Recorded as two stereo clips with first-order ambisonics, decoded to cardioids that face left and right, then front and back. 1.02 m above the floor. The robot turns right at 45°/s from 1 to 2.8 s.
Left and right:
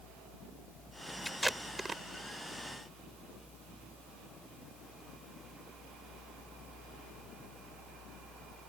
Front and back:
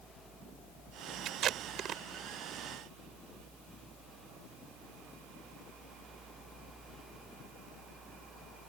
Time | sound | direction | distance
1.2 | tape being pulled | 175° left | ?